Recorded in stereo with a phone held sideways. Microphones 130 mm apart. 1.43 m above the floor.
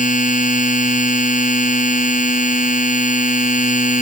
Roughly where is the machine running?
Left.